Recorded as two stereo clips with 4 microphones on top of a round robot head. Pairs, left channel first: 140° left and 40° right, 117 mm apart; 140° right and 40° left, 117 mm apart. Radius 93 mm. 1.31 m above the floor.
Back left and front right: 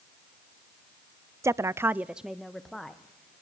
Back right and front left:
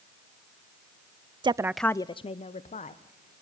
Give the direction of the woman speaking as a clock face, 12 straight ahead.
11 o'clock.